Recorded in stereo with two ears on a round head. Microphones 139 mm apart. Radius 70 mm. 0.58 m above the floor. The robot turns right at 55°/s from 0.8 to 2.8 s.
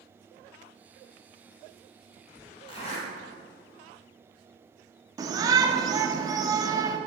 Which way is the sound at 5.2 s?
25° right (ahead or behind).